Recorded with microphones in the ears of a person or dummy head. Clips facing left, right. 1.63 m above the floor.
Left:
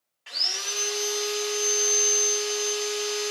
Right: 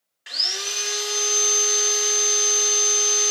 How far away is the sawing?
About 0.7 m.